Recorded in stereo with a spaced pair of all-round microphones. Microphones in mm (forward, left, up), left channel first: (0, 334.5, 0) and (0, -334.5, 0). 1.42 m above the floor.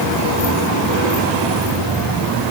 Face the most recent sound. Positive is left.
No sound to turn to.